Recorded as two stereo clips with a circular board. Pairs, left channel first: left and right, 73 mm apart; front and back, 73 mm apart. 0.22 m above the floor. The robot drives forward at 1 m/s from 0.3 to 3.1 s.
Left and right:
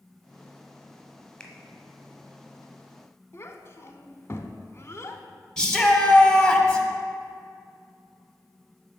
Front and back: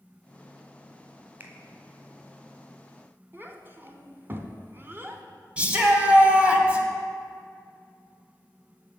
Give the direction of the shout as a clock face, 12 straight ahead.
7 o'clock.